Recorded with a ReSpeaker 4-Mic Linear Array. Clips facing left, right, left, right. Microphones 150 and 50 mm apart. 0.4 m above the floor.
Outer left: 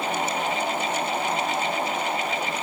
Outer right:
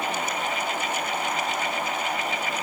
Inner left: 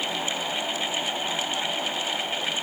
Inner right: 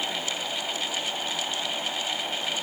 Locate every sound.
Only background noise.